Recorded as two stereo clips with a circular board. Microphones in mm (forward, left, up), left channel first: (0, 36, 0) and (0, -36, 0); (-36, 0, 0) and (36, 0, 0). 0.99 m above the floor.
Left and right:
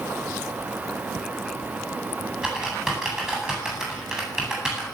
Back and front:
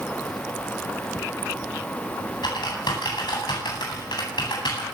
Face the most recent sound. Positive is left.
turn(degrees=-175)